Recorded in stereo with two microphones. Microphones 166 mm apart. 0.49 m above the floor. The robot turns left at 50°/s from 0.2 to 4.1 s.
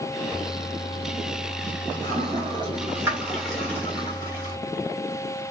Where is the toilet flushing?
20° right (ahead or behind), 1.3 m; by 4.6 s 25° left (ahead or behind), 1.3 m.